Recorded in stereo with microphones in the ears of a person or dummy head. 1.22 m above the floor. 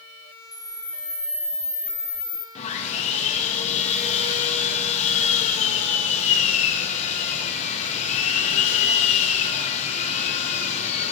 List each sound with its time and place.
0.5 s a camera shutter: 15° left (ahead or behind), 3.5 m
2.5 s sawing: 50° left (ahead or behind), 1.5 m